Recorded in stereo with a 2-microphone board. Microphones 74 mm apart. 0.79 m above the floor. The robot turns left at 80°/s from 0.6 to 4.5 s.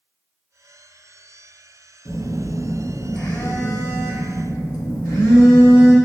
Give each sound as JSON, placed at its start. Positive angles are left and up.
{"t": 2.0, "sound": "a phone buzzing", "azimuth_deg": -105, "distance_m": 0.9}